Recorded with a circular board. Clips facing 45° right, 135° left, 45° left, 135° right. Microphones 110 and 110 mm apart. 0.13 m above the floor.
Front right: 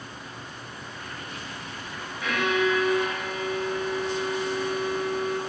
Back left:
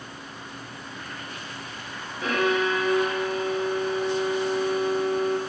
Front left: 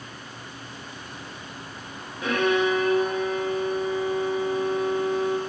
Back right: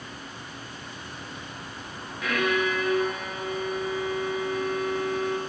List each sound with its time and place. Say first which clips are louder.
2.2 s a violin: back left 1 dB, front left 4 dB; 95° left, 1.0 m